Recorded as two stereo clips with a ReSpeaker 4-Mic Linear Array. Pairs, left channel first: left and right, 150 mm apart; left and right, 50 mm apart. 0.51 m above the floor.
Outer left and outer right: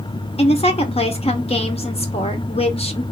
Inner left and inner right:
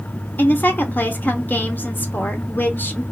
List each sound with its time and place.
0.4 s a woman speaking: 40° left (ahead or behind), 1.0 m